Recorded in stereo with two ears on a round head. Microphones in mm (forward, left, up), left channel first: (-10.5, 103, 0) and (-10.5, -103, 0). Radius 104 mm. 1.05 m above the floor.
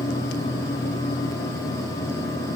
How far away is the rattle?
I don't hear a rattle.